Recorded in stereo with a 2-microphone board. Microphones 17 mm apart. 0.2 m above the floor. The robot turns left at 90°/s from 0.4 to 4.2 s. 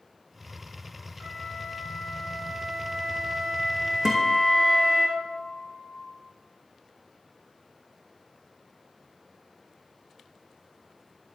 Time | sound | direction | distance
1.2 | a flute | 135° left | 7.5 m
4.0 | a guitar | 40° right (ahead or behind) | 3 m